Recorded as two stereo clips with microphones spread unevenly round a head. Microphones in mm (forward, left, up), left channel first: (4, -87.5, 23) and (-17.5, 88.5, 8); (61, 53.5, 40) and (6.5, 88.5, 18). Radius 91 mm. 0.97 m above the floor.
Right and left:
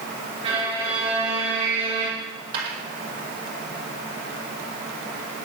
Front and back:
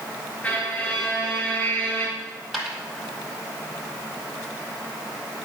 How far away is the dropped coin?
About 4.5 m.